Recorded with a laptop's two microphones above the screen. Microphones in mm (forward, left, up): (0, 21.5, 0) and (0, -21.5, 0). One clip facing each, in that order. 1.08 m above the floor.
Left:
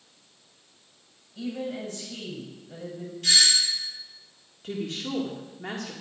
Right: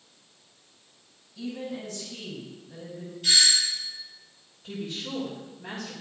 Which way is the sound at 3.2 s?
80° left.